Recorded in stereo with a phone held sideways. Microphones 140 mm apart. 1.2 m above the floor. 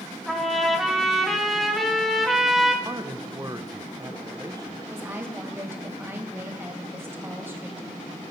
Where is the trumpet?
Centre (ahead or behind), 2 m.